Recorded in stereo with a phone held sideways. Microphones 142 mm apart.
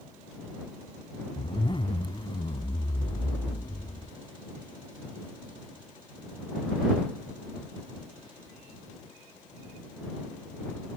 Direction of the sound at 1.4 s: 35° left (ahead or behind).